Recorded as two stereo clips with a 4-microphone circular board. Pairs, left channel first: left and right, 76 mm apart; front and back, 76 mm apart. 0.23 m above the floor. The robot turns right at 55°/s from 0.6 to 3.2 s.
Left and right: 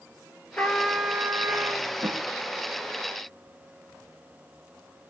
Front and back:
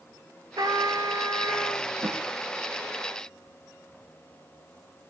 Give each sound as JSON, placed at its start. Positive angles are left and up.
{"t": 0.6, "sound": "a trumpet", "azimuth_deg": 160, "distance_m": 1.3}
{"t": 2.0, "sound": "a snare drum", "azimuth_deg": -125, "distance_m": 3.0}